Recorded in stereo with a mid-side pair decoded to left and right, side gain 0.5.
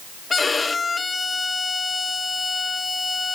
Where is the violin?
25° left, 0.9 m.